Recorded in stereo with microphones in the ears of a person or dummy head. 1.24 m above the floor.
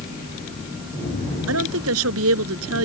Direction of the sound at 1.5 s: 80° right.